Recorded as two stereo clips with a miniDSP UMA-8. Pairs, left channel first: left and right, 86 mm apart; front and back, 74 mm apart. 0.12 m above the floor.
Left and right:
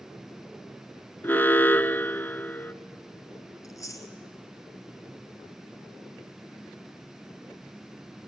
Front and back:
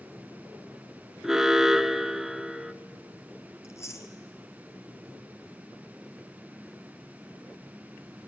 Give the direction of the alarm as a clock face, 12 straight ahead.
8 o'clock.